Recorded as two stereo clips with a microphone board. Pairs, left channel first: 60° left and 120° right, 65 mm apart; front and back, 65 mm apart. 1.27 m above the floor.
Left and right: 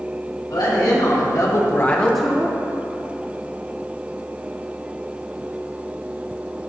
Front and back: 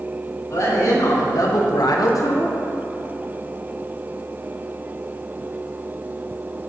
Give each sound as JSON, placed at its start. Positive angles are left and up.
{"t": 0.5, "sound": "a woman speaking", "azimuth_deg": 40, "distance_m": 2.5}